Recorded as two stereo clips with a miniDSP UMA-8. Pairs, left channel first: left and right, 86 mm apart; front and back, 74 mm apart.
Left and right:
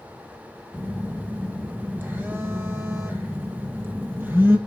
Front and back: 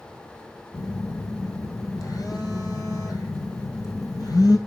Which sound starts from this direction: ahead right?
A phone buzzing, at 0.7 s.